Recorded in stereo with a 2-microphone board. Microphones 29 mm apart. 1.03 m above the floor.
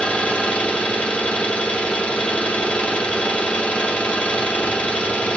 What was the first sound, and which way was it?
An engine running, 45° left (ahead or behind).